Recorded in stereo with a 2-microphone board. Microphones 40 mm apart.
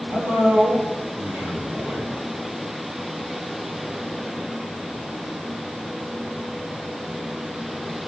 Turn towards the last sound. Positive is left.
turn(degrees=-55)  # may be behind; listen again after turning